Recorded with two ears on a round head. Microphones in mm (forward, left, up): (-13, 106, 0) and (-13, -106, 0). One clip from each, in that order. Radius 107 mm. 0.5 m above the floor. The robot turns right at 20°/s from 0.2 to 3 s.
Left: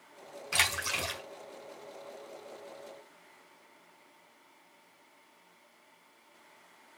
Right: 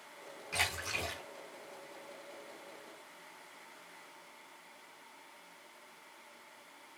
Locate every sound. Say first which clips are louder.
0.5 s a splash: left 6 dB; 50° left (ahead or behind), 5 m; by 1.2 s 40° left (ahead or behind), 5 m